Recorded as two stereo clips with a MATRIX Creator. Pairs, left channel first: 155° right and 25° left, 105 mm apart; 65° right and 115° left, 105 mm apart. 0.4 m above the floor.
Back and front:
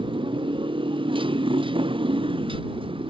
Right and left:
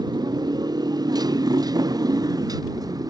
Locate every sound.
0.0 s a motorcycle: 60° left